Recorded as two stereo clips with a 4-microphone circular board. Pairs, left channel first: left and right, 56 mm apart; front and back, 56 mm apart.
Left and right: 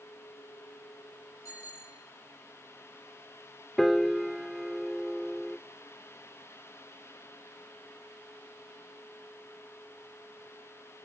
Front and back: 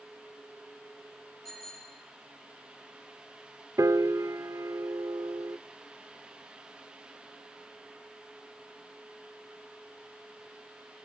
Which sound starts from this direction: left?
A bicycle bell, at 1.4 s.